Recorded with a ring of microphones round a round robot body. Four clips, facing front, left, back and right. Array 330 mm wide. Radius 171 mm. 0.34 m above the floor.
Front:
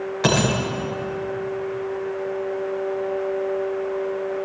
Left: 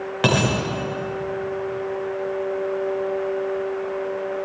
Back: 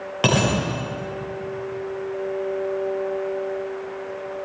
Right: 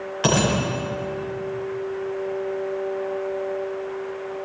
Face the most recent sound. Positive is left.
turn(degrees=130)